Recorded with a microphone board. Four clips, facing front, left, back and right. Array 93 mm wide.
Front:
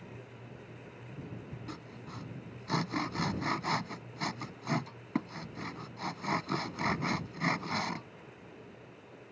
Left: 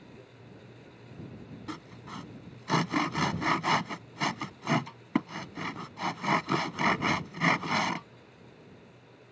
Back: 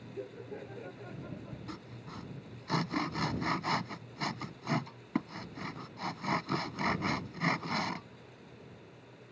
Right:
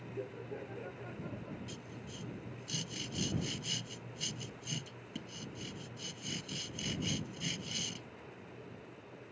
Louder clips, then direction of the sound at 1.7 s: Left 6 dB, even; 90° left.